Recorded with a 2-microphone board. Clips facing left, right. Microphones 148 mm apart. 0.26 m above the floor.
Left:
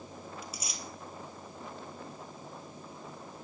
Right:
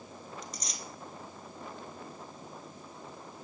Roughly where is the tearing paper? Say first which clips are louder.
Even; centre.